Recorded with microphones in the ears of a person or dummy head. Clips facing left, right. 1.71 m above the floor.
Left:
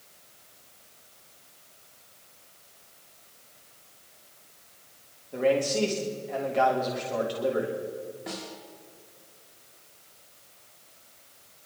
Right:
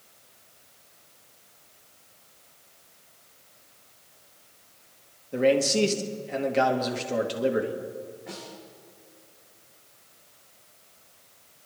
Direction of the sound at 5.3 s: 30° right (ahead or behind).